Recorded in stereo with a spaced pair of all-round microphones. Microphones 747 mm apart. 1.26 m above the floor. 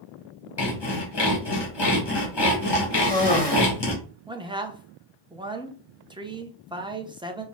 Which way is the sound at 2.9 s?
35° left (ahead or behind).